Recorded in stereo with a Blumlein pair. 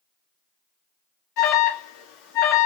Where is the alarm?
45° left, 2.5 m.